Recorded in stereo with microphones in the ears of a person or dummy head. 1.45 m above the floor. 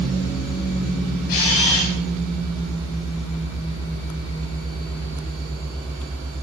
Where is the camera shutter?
70° left (ahead or behind), 2.5 m.